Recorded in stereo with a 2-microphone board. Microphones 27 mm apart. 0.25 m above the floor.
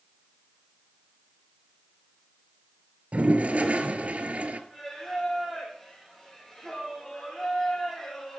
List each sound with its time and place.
3.1 s a toilet flushing: 60° right (ahead or behind), 1.1 m
4.7 s singing: 10° left (ahead or behind), 5.5 m